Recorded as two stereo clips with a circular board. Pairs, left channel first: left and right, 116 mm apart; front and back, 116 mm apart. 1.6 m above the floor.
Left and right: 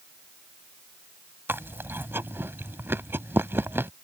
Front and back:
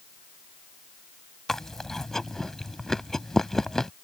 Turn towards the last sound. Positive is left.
turn(degrees=-75)